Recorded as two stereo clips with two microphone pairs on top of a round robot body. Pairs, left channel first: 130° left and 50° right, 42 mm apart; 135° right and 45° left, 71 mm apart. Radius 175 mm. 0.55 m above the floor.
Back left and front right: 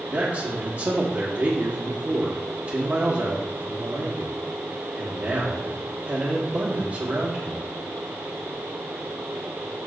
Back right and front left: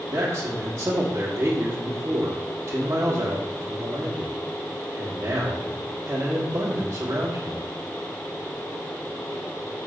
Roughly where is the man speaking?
Ahead.